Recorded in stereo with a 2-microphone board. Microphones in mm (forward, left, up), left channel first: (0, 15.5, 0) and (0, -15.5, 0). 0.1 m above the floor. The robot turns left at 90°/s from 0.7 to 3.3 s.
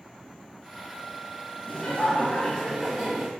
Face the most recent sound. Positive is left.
turn(degrees=-30)